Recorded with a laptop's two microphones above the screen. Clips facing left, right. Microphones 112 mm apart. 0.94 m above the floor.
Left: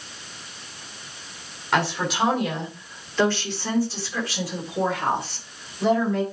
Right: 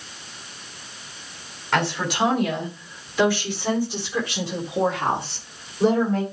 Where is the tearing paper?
I don't hear tearing paper.